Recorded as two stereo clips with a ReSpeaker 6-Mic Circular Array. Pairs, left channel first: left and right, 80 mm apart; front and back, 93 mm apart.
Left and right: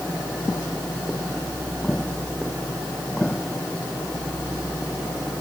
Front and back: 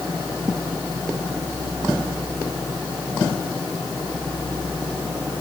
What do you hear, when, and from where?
Only background noise.